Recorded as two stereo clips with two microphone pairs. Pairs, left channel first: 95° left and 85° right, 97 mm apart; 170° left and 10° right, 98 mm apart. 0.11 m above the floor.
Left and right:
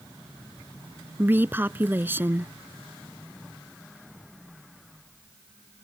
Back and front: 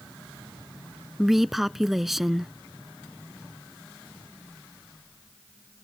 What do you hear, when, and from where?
1.2 s a woman speaking: 90° right